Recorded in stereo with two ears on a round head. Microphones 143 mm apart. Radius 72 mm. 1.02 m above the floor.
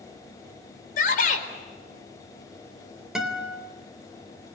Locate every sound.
1.0 s a shout: 55° left (ahead or behind), 4.5 m
3.1 s a guitar: 5° right (ahead or behind), 3.5 m